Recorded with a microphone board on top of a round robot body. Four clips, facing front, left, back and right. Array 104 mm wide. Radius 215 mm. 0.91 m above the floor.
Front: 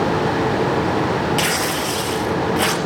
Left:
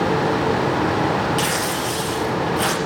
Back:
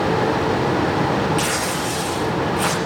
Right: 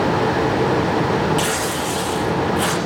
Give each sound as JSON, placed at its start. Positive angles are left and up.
{"t": 1.4, "sound": "tearing paper", "azimuth_deg": 5, "distance_m": 5.0}